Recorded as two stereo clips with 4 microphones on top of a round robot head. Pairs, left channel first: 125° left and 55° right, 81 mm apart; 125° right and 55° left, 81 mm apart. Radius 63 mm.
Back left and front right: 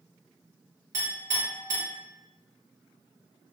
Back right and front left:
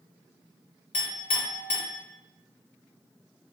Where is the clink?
105° right, 1.0 m.